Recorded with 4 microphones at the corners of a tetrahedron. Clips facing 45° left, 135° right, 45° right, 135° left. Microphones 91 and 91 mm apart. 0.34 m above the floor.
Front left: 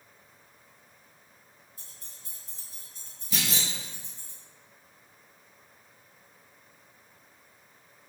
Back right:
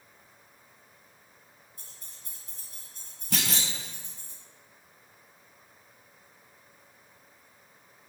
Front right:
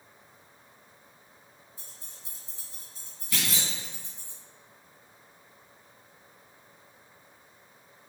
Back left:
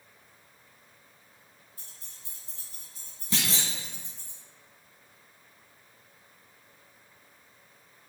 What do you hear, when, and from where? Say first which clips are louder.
1.8 s keys jangling: even, front right 3 dB; 105° right, 1.7 m
3.3 s a clunk: back right 1 dB, back left 1 dB; 160° right, 0.6 m